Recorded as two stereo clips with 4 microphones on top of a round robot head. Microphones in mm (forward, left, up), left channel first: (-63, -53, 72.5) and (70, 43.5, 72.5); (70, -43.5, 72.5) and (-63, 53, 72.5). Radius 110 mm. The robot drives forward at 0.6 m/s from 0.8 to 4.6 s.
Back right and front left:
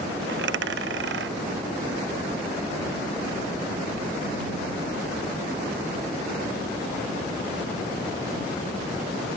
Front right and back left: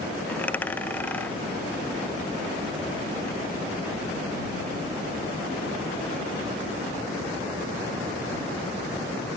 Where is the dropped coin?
45° left; by 3.4 s 50° left.